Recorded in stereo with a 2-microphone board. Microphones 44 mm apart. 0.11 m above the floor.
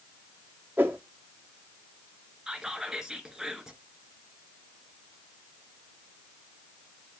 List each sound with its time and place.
0.8 s a whoosh: 45° right (ahead or behind), 1.8 m
2.5 s whispering: 15° right (ahead or behind), 1.2 m